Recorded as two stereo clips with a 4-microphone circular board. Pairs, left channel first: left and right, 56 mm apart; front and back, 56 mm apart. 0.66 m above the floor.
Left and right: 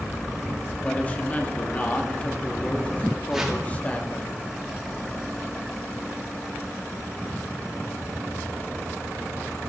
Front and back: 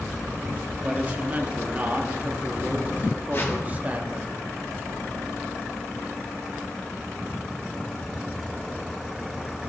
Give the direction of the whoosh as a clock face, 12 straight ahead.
12 o'clock.